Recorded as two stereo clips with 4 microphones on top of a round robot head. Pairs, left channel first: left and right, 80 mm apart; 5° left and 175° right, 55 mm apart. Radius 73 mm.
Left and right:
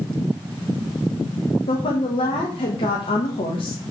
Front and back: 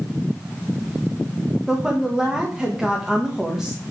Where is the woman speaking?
100° left, 1.6 m.